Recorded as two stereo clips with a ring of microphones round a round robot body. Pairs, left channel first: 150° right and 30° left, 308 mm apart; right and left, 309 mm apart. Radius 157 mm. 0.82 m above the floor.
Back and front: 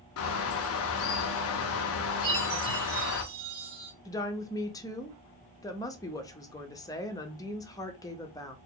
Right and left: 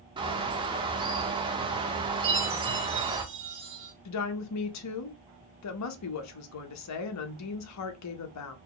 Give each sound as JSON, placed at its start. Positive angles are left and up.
{"t": 0.2, "sound": "a bird", "azimuth_deg": 165, "distance_m": 0.6}
{"t": 2.2, "sound": "a chime", "azimuth_deg": 40, "distance_m": 1.8}
{"t": 4.0, "sound": "a woman speaking", "azimuth_deg": -75, "distance_m": 0.7}